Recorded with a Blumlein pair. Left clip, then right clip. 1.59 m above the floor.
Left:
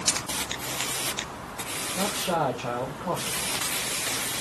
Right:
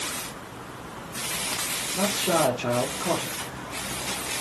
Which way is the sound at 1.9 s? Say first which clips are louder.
Right 3 dB; 65° right.